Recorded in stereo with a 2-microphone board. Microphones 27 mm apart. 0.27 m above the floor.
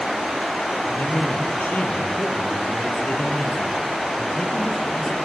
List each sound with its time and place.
0.8 s a man speaking: 75° left (ahead or behind), 6.5 m; by 5.2 s 45° left (ahead or behind), 5.5 m